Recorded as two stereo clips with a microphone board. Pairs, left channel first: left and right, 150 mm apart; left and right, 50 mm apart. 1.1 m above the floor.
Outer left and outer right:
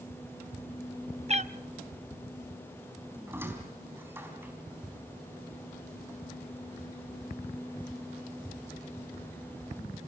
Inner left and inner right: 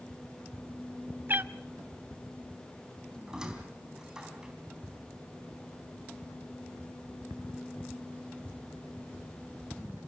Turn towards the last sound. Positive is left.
turn(degrees=-15)  # may be behind; listen again after turning